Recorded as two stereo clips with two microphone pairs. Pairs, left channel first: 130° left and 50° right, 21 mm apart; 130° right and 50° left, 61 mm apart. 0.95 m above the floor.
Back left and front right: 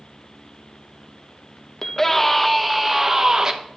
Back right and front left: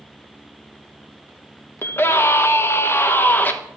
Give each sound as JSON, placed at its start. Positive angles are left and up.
{"t": 1.8, "sound": "a scream", "azimuth_deg": -170, "distance_m": 1.1}